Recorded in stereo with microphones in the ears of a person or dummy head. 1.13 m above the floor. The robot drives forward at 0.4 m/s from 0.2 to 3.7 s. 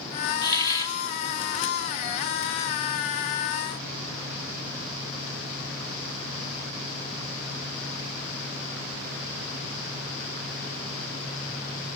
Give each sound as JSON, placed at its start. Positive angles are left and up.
{"t": 0.4, "sound": "a hiss", "side_deg": 20, "distance_m": 1.2}